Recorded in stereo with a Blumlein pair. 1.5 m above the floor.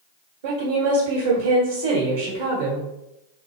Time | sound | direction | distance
0.4 | a woman speaking | 55° right | 1.1 m